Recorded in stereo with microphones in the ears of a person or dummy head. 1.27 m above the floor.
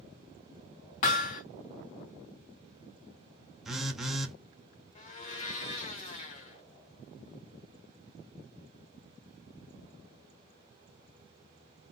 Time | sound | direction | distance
1.0 | hammering | 40° left (ahead or behind) | 0.9 m
3.6 | a phone buzzing | 5° left (ahead or behind) | 0.5 m
5.0 | a blender | 35° left (ahead or behind) | 0.5 m